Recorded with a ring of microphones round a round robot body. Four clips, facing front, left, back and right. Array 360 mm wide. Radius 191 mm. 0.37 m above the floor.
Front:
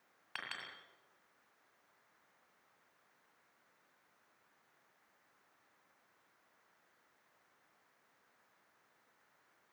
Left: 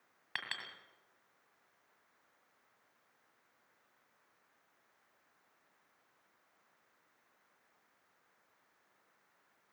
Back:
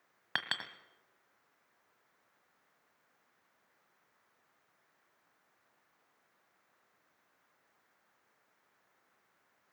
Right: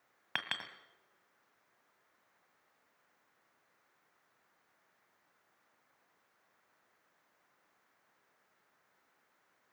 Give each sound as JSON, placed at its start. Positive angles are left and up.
{"t": 0.3, "sound": "a clink", "azimuth_deg": -145, "distance_m": 1.9}